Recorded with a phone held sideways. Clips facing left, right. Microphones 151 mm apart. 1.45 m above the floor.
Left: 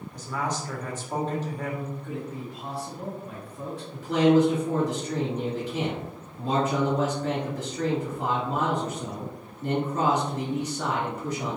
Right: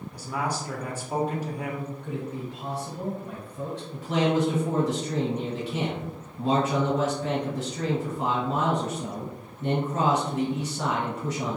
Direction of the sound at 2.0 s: 85° right.